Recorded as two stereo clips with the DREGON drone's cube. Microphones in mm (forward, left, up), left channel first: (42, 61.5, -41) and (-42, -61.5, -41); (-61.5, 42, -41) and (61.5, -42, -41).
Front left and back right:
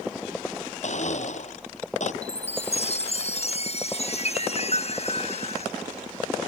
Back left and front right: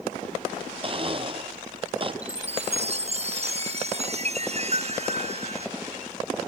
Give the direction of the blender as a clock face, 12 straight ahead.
11 o'clock.